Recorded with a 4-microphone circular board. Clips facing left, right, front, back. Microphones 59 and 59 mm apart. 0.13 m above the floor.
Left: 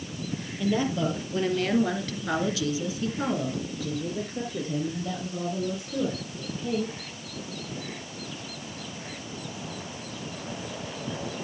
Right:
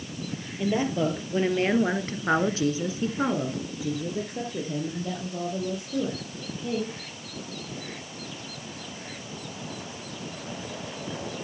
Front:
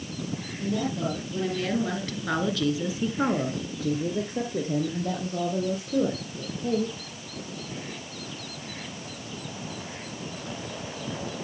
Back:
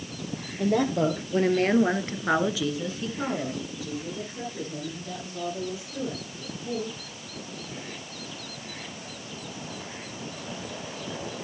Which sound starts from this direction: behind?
A woman speaking, at 0.6 s.